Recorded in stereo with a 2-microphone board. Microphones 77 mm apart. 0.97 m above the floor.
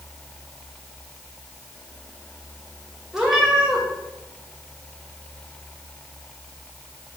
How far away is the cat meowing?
About 1.5 m.